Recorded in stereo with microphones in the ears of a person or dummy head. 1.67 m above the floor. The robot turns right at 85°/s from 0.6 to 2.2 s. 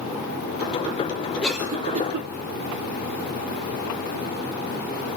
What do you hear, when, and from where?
1.4 s a cough: 10° left (ahead or behind), 0.8 m; by 2.3 s 50° right (ahead or behind), 0.8 m